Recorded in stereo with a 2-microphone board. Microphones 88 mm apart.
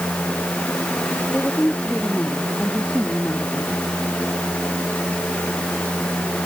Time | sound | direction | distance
1.3 | a woman speaking | 15° left (ahead or behind) | ?